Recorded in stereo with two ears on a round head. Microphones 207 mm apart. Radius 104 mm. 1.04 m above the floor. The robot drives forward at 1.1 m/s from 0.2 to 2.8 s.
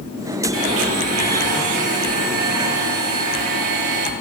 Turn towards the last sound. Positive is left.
turn(degrees=-80)